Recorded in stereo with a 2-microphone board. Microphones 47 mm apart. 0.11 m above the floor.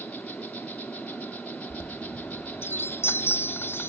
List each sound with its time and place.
0.0 s an insect: 30° left (ahead or behind), 1.0 m
1.7 s a chime: 55° left (ahead or behind), 0.6 m